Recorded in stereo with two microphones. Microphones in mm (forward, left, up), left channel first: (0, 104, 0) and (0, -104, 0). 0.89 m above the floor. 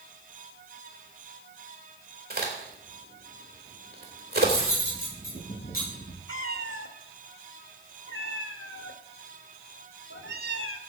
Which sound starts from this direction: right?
A crack, at 2.3 s.